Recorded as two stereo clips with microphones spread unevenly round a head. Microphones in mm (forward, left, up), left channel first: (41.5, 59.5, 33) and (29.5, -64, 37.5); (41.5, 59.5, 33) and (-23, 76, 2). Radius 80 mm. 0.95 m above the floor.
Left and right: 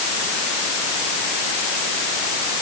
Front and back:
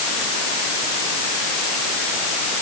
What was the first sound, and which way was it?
Only background noise.